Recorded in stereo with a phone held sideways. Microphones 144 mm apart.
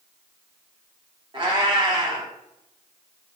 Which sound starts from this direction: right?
A cat meowing, at 1.3 s.